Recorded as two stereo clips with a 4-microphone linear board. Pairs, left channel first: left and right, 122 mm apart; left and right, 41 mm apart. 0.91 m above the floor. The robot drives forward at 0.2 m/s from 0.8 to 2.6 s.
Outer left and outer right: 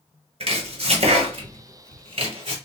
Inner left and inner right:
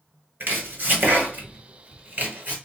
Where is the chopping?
60° right (ahead or behind), 2 m; by 2.5 s 55° right (ahead or behind), 2 m.